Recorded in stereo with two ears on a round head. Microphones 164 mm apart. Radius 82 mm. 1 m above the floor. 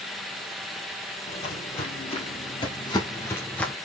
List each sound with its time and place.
1.3 s footsteps: 35° left (ahead or behind), 1.8 m; by 3.7 s 5° left (ahead or behind), 0.9 m